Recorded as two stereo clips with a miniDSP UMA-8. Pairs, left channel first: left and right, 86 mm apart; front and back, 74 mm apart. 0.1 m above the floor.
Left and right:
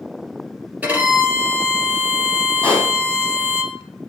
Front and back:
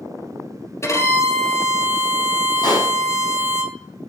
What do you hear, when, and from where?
0.8 s a violin: 25° right, 1.8 m
2.6 s a pop: 20° left, 5 m